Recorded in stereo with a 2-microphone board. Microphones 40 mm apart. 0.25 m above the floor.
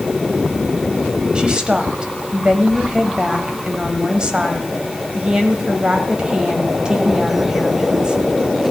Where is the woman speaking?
20° right (ahead or behind), 1.2 m.